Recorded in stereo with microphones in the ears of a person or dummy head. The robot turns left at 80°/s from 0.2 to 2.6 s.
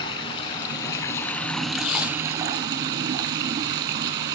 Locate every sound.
0.0 s running water: 20° left (ahead or behind), 1.1 m; by 4.3 s 20° right (ahead or behind), 1.1 m
1.7 s tape being pulled: 45° left (ahead or behind), 1.8 m; by 3.4 s 25° right (ahead or behind), 1.8 m